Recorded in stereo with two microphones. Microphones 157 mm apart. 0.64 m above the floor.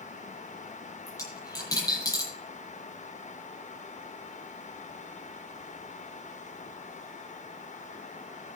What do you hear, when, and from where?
1.1 s a dropped coin: 20° left (ahead or behind), 9 m